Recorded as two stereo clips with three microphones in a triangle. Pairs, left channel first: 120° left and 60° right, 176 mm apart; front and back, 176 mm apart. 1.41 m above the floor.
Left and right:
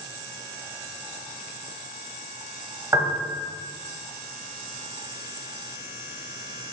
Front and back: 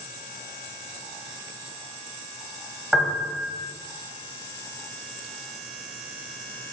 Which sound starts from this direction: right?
A piano, at 2.9 s.